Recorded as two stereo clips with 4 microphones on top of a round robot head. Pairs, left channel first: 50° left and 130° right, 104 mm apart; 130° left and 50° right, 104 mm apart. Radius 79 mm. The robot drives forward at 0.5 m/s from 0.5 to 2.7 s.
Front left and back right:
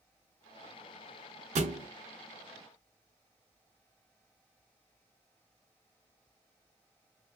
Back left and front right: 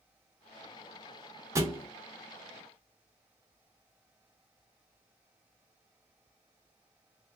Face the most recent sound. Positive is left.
turn(degrees=-145)